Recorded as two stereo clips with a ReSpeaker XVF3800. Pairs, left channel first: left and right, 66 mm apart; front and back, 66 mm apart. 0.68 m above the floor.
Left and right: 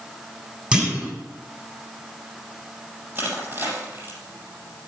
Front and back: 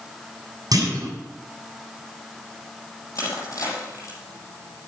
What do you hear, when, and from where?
0.7 s a clunk: 160° right, 7 m
3.1 s crushing: 35° right, 6.5 m